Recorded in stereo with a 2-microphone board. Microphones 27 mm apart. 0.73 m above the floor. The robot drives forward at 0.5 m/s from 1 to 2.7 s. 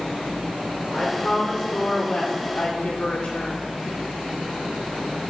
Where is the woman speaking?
45° left (ahead or behind), 1.9 m; by 3.7 s 70° left (ahead or behind), 1.5 m.